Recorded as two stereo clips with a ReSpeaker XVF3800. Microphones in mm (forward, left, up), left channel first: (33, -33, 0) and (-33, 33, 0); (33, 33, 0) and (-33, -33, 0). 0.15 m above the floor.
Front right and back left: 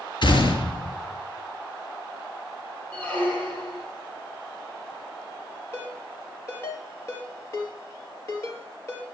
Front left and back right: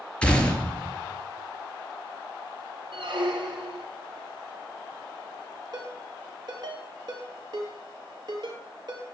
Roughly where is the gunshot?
Ahead right.